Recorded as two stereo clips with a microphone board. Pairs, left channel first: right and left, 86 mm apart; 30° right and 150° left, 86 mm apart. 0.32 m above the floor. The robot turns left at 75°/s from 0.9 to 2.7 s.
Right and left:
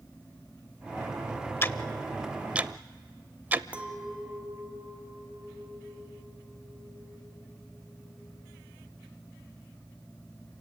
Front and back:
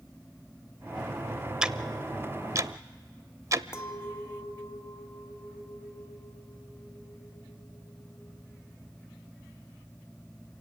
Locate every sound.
1.6 s ticking: 135° right, 0.5 m; by 3.6 s 145° left, 0.5 m
3.7 s a clink: 20° left, 1.3 m